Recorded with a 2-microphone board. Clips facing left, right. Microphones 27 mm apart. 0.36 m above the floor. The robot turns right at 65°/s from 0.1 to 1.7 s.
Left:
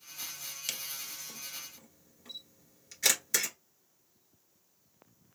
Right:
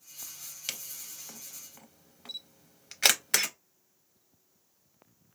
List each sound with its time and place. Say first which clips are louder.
0.7 s a camera shutter: even; 5° right (ahead or behind), 0.6 m; by 3.5 s 70° right (ahead or behind), 0.6 m